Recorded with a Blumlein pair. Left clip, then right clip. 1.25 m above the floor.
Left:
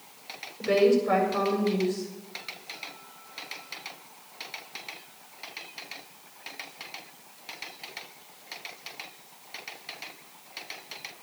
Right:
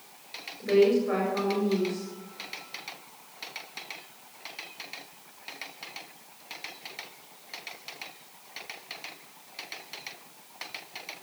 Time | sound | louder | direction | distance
0.6 | a woman speaking | even | 20° left | 7.5 m